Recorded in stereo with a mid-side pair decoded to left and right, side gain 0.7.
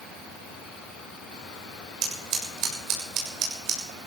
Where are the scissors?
50° right, 6.5 m.